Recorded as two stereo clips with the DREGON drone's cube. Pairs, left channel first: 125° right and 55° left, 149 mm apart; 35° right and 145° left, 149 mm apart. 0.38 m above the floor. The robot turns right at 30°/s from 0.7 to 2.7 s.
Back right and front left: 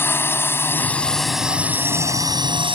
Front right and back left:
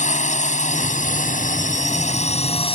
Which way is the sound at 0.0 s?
50° right.